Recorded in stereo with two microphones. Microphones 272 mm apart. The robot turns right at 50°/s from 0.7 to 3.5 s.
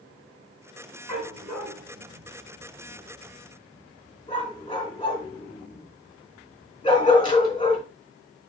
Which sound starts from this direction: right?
A dog barking, at 1.1 s.